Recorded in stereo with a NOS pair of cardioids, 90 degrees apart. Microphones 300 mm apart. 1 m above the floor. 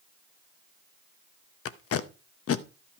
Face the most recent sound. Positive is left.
turn(degrees=50)